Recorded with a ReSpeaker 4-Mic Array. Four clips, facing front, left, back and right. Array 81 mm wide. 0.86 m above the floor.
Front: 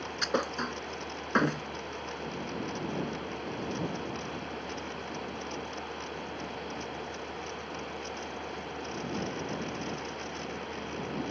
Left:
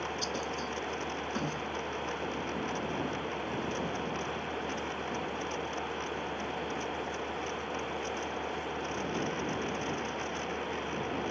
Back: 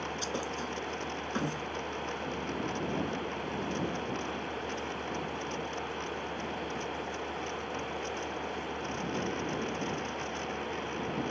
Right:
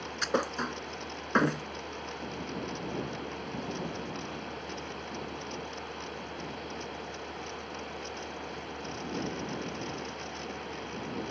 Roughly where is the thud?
Ahead right.